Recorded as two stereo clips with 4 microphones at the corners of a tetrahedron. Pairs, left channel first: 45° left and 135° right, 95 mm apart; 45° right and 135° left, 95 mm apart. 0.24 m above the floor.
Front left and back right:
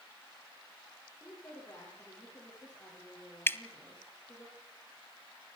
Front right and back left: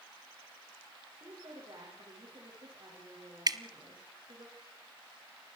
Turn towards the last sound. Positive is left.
turn(degrees=105)